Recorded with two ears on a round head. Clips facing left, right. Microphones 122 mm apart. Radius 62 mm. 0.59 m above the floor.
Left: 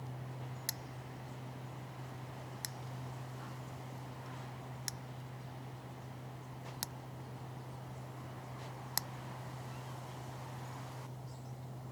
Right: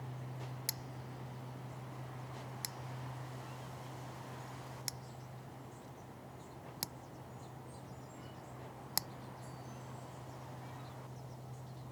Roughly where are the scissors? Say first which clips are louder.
Even; centre.